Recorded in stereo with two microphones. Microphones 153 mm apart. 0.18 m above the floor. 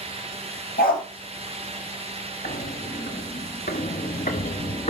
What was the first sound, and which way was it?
A dog barking, 70° left (ahead or behind).